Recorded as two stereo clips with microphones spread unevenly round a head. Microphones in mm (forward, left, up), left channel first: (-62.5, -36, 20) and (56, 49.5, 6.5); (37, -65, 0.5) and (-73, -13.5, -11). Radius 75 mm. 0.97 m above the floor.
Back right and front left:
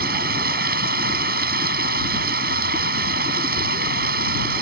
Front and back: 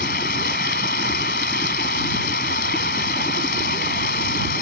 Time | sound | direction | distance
0.0 | running water | 5° left | ?